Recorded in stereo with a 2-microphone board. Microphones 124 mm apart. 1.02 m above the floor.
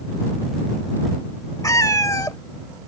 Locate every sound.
1.6 s a cat meowing: 25° left (ahead or behind)